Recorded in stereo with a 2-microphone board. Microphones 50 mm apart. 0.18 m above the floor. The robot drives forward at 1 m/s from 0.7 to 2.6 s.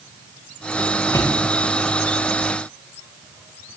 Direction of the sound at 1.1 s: 85° left.